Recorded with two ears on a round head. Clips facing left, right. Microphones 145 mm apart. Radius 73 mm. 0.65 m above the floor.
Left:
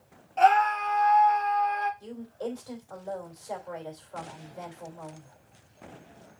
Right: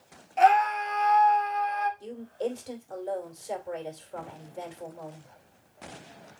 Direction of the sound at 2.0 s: 25° right (ahead or behind).